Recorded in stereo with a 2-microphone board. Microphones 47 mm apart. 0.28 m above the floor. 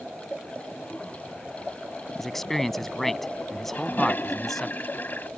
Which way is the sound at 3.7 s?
45° left (ahead or behind).